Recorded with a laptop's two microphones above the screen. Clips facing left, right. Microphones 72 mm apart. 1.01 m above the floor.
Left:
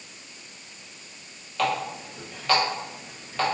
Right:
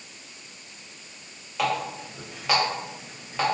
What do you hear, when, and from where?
1.6 s a running tap: 10° right (ahead or behind), 0.7 m